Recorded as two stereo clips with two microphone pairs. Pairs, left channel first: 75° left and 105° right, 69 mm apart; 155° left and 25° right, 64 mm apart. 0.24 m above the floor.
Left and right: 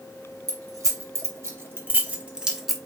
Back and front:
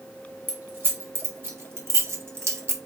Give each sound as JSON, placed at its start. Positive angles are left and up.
{"t": 0.5, "sound": "keys jangling", "azimuth_deg": -80, "distance_m": 1.5}